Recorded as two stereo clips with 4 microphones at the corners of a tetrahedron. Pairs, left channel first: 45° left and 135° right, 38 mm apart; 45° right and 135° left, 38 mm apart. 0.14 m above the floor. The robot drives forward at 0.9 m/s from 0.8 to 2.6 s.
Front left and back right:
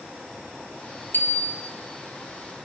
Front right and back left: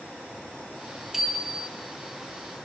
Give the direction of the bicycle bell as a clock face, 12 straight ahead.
10 o'clock.